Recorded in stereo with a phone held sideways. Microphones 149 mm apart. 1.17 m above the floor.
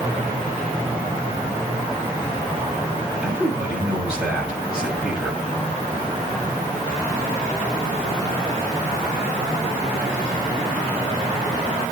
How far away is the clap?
I don't hear a clap.